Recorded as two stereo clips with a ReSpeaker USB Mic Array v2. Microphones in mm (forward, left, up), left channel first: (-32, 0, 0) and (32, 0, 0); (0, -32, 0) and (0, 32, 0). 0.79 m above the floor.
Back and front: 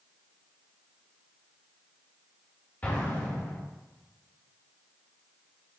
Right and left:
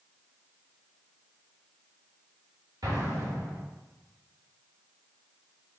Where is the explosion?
115° left, 1.3 m.